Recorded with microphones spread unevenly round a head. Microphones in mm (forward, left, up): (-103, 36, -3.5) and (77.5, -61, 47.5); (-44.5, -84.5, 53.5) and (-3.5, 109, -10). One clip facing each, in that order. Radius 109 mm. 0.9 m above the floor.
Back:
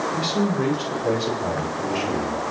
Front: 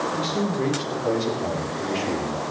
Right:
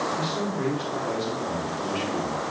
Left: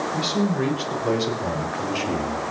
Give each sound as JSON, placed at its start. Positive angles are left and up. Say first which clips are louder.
{"t": 0.1, "sound": "a man speaking", "louder": "back 3 dB, left 5 dB", "azimuth_deg": 75, "distance_m": 5.5}